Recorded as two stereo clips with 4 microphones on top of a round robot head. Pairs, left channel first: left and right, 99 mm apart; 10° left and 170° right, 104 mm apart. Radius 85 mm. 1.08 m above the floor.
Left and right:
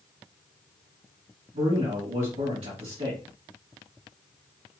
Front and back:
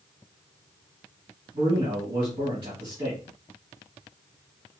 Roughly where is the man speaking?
Behind right.